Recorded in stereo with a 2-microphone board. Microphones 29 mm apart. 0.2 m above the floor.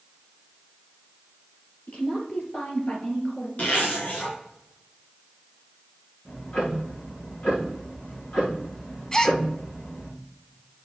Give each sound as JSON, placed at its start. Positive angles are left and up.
{"t": 1.9, "sound": "a woman speaking", "side_deg": 60, "distance_m": 3.5}
{"t": 3.6, "sound": "a zipper", "side_deg": 65, "distance_m": 3.5}
{"t": 6.2, "sound": "ticking", "side_deg": 70, "distance_m": 5.0}
{"t": 9.1, "sound": "a gasp", "side_deg": 25, "distance_m": 0.6}